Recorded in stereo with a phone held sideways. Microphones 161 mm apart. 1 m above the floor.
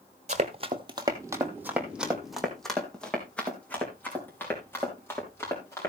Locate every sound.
0.3 s running footsteps: 45° right (ahead or behind), 1.6 m; by 5.9 s 15° left (ahead or behind), 6.5 m